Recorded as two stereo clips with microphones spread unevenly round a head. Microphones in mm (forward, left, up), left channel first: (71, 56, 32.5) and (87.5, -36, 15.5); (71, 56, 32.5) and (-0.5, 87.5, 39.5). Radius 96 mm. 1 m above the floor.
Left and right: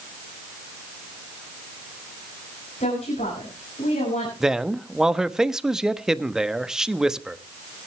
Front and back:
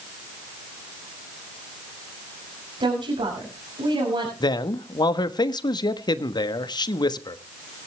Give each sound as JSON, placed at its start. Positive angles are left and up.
{"t": 2.8, "sound": "a woman speaking", "azimuth_deg": 145, "distance_m": 6.0}
{"t": 4.4, "sound": "a man speaking", "azimuth_deg": 5, "distance_m": 1.3}